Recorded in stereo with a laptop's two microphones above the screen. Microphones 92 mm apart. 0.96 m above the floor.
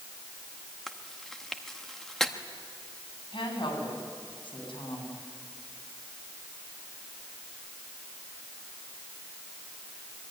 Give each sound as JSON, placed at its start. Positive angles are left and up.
{"t": 0.9, "sound": "chewing", "side_deg": 5, "distance_m": 1.1}
{"t": 3.3, "sound": "a woman speaking", "side_deg": 60, "distance_m": 8.5}